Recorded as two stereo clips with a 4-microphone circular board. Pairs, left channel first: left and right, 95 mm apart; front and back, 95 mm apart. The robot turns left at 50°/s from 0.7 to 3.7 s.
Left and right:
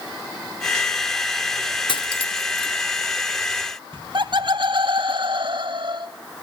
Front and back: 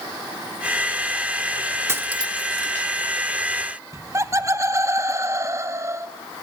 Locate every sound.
1.9 s cutlery clinking: 120° left, 1.1 m; by 2.7 s 75° left, 1.1 m
3.9 s laughter: 120° right, 1.7 m